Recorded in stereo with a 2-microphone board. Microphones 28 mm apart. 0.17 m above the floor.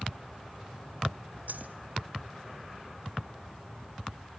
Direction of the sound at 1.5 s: 80° right.